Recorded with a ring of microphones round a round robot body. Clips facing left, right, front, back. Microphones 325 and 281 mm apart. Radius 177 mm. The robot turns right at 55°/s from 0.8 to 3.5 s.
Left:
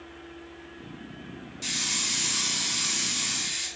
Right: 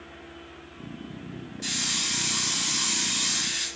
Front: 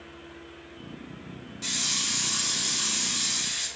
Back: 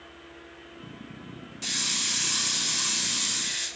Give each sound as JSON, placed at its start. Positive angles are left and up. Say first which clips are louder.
{"t": 1.6, "sound": "a hiss", "louder": "right 2 dB, front 1 dB", "azimuth_deg": 135, "distance_m": 1.0}